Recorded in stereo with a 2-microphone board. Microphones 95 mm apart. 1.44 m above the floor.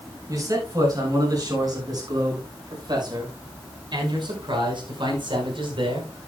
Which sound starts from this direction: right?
A man speaking, at 0.3 s.